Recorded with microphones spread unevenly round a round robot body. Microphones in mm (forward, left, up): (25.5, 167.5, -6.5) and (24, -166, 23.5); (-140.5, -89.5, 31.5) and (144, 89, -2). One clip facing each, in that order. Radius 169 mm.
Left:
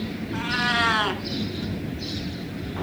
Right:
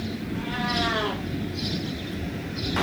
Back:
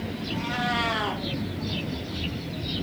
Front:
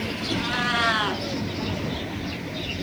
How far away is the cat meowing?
About 2 m.